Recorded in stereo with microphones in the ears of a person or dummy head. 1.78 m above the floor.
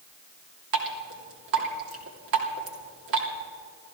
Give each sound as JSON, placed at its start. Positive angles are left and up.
{"t": 0.7, "sound": "dripping", "side_deg": -65, "distance_m": 2.5}